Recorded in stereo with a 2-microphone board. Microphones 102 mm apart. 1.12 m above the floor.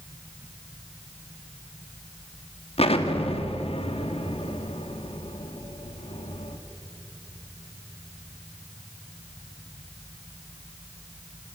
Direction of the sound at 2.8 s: 75° left (ahead or behind).